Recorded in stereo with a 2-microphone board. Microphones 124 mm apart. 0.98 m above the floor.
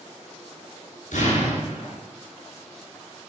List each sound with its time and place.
1.1 s an explosion: 80° left, 5.5 m